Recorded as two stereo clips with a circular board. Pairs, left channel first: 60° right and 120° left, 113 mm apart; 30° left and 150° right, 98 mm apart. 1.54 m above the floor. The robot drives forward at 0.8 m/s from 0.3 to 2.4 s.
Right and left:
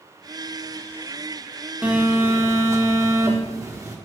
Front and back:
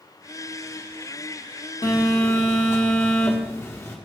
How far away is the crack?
No crack in this recording.